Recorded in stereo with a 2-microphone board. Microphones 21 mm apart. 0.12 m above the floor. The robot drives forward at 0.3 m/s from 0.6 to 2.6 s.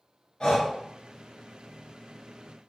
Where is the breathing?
45° left (ahead or behind), 1.0 m.